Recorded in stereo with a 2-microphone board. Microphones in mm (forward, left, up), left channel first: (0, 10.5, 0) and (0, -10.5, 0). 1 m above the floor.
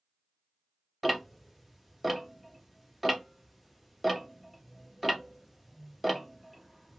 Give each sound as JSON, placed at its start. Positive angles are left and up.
{"t": 1.0, "sound": "ticking", "side_deg": -5, "distance_m": 0.5}